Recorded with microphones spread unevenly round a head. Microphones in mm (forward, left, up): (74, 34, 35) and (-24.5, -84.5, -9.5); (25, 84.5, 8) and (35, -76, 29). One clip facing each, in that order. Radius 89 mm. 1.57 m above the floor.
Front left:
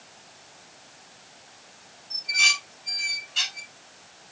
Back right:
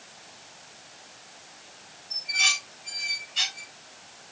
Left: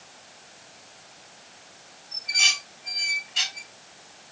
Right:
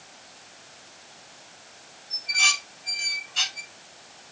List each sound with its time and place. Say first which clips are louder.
2.1 s dishes clattering: front left 1 dB, right 3 dB; 25° left, 5 m